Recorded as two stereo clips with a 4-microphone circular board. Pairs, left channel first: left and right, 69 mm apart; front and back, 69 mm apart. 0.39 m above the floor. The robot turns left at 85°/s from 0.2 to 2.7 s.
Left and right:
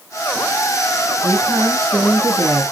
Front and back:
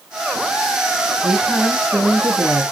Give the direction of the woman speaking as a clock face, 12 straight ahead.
2 o'clock.